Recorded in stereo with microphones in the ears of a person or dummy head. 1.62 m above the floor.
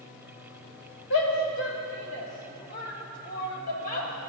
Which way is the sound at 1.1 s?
85° left.